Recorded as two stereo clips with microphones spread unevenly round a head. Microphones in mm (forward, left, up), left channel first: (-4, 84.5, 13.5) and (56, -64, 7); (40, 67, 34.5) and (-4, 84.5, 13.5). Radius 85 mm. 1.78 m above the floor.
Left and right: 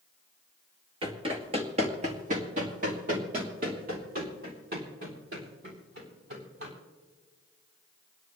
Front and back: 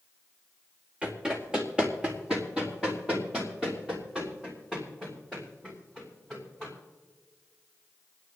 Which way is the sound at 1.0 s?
90° right.